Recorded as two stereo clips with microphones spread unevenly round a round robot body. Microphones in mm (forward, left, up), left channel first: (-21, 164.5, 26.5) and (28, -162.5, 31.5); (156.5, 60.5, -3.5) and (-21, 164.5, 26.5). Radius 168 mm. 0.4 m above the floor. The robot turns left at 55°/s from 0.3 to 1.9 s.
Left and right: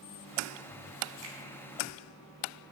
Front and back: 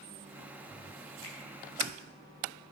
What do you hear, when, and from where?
1.2 s a finger snap: 35° right, 3 m; by 1.4 s 40° right, 3 m